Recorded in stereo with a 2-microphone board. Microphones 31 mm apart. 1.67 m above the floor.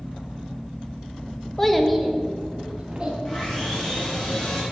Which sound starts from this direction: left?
Sawing, at 3.2 s.